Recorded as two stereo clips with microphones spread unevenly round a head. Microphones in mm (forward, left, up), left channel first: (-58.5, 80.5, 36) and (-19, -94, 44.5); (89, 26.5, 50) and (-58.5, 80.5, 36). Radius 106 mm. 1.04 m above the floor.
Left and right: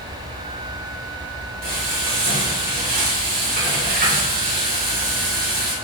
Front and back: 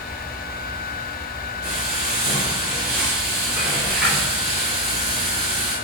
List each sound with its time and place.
1.6 s frying: 115° right, 3 m